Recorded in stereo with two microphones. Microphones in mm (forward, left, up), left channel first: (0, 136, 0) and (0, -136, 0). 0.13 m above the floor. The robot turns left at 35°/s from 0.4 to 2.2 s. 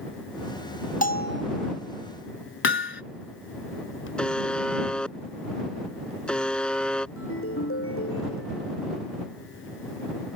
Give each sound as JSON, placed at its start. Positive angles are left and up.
{"t": 1.0, "sound": "a bell", "side_deg": 30}
{"t": 2.6, "sound": "hammering", "side_deg": 45}
{"t": 4.2, "sound": "a buzzer", "side_deg": 5}
{"t": 7.2, "sound": "a ringtone", "side_deg": 55}